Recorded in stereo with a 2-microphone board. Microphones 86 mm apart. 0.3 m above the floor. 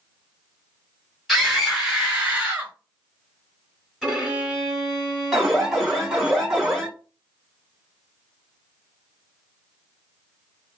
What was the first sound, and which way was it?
A scream, centre (ahead or behind).